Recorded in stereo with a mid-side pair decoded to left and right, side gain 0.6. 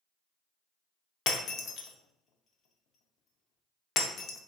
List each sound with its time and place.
1.3 s breaking glass: 55° left, 0.6 m